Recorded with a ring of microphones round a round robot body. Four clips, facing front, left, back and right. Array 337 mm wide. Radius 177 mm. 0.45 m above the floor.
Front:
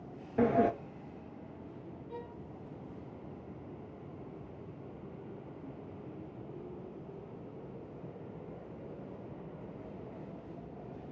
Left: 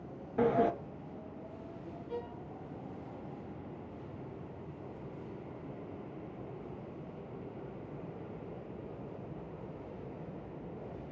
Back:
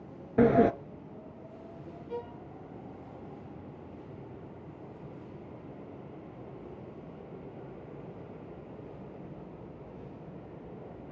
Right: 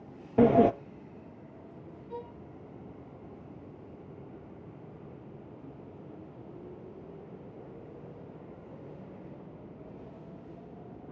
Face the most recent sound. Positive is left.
turn(degrees=150)